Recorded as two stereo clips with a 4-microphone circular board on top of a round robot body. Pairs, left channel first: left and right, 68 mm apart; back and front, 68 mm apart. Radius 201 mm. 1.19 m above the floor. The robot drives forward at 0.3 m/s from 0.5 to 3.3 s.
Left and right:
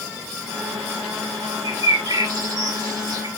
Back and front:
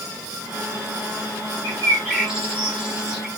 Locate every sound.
1.6 s a bird: 75° right, 5 m; by 3.3 s 80° right, 4.5 m